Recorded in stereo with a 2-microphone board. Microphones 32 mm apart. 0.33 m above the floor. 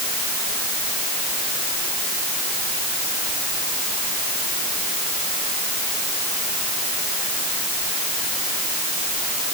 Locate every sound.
Only background noise.